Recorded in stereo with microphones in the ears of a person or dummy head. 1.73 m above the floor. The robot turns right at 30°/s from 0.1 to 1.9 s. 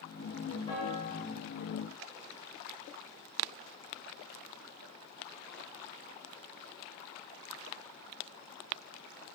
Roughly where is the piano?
Left.